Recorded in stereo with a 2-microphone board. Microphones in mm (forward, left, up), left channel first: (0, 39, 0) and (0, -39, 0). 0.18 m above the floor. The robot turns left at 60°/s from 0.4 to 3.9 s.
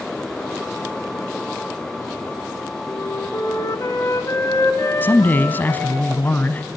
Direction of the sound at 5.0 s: 25° left (ahead or behind).